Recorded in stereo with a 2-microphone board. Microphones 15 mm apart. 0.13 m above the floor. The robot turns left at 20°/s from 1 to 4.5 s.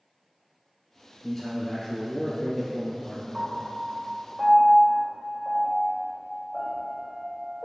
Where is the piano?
10° right (ahead or behind), 1.6 m; by 7.6 s 10° left (ahead or behind), 1.6 m.